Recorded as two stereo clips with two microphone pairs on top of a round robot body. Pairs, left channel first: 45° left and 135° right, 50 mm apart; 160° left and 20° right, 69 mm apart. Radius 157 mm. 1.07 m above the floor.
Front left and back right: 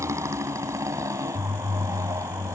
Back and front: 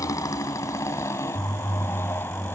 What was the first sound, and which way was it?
A motorcycle, 155° right.